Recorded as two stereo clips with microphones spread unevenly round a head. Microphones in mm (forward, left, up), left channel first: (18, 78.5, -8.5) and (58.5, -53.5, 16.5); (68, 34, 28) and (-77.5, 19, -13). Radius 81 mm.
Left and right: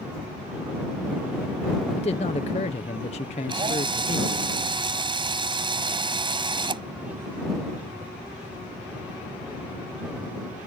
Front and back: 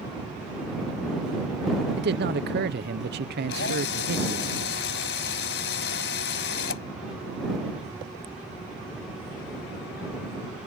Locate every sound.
2.0 s a man speaking: 165° left
3.5 s a drill: 15° right